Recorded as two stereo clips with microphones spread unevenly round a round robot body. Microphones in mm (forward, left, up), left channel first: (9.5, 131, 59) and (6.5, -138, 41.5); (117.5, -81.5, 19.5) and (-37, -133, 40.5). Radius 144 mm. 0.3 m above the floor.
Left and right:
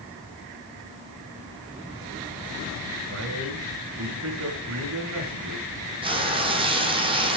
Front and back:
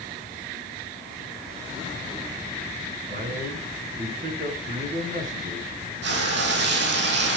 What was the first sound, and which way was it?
A man speaking, 125° right.